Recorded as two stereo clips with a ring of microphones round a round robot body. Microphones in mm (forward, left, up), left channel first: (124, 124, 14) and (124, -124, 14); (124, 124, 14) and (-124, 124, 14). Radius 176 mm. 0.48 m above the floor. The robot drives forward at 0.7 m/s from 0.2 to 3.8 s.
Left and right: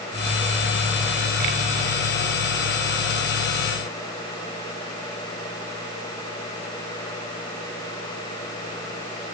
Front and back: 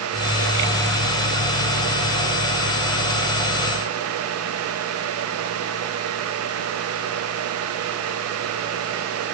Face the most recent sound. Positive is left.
No sound to turn to.